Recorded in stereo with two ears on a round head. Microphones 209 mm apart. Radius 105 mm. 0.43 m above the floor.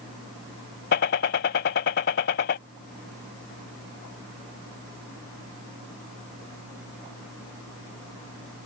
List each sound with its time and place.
0.9 s a gunshot: 45° left (ahead or behind)